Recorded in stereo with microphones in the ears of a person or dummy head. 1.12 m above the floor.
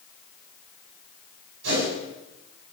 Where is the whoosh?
70° right (ahead or behind), 8 m.